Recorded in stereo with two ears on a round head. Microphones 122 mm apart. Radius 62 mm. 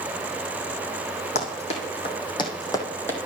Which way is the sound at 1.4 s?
55° left (ahead or behind).